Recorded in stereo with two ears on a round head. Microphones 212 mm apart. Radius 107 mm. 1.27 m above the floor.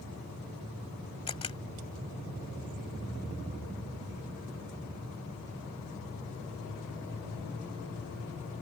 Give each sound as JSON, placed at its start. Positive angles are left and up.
{"t": 1.3, "sound": "a camera shutter", "side_deg": 25}